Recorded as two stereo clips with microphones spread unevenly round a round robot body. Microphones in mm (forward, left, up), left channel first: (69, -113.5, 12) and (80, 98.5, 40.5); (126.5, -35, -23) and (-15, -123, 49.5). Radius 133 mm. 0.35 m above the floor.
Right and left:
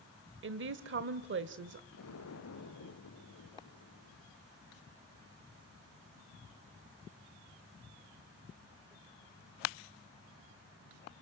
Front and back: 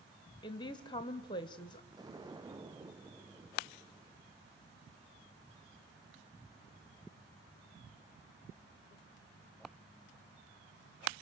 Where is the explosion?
85° right, 3 m.